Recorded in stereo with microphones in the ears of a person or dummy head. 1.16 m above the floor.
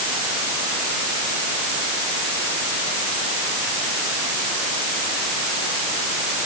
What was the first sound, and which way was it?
Only background noise.